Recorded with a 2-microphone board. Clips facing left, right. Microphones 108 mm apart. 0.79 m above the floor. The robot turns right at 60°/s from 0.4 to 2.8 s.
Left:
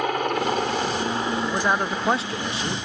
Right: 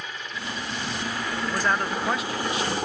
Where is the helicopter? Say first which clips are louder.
Left 13 dB; 90° left; by 2.9 s 125° right.